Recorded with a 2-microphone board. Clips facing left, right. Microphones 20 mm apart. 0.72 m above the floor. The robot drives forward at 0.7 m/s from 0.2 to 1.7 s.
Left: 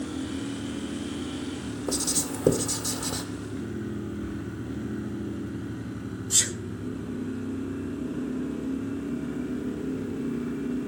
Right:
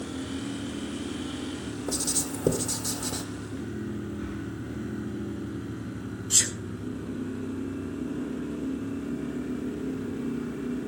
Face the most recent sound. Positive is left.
turn(degrees=-25)  # may be behind; listen again after turning